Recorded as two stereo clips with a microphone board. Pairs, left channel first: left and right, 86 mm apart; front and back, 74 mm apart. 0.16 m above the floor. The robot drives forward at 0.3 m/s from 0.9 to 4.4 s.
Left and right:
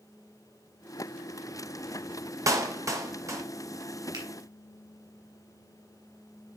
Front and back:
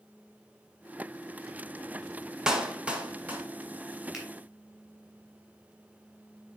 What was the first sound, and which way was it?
A clap, 105° right.